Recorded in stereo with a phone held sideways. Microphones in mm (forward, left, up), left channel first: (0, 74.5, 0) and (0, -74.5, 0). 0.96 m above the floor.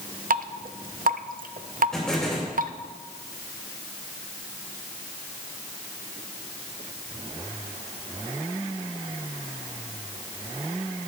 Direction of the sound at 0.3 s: 80° right.